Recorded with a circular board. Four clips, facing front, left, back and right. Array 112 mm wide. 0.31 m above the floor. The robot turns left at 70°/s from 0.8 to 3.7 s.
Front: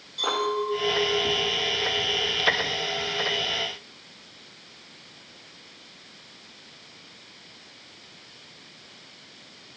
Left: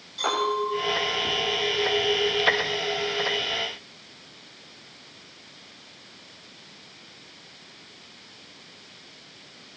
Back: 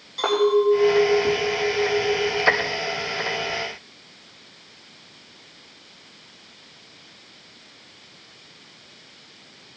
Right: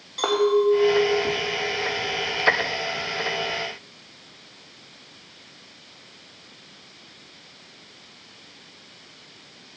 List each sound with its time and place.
0.2 s a clink: 120° right, 9.5 m; by 3.5 s 50° left, 9.5 m